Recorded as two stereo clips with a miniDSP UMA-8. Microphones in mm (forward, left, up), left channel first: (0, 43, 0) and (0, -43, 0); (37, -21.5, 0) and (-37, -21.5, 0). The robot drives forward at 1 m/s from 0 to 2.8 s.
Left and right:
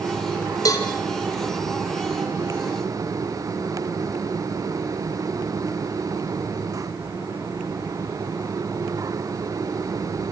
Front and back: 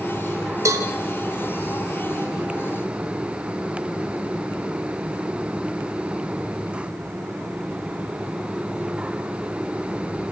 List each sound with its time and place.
0.7 s a cowbell: 135° left, 3 m; by 0.9 s 140° left, 3 m